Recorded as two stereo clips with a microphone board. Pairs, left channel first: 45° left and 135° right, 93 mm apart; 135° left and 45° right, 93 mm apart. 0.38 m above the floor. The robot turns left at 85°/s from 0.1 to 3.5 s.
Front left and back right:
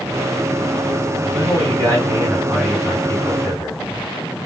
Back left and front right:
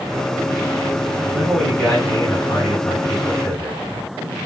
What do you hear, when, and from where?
1.3 s a man speaking: 120° right, 1.8 m; by 3.8 s 60° left, 1.8 m